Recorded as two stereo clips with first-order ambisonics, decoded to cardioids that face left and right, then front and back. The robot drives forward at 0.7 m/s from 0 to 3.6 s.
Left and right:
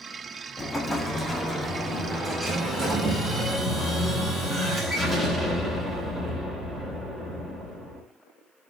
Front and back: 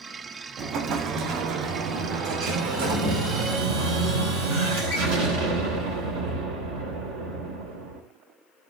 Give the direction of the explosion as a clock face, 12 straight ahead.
7 o'clock.